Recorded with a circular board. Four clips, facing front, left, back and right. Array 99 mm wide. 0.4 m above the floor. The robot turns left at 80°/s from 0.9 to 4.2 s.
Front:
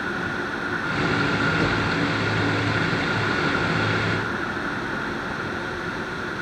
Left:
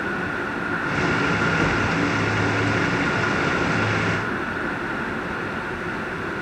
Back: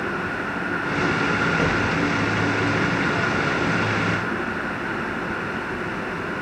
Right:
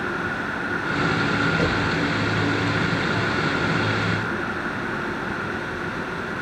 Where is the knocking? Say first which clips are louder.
Left 1 dB, back 1 dB; 140° right, 1.8 m; by 1.9 s 165° right, 1.8 m.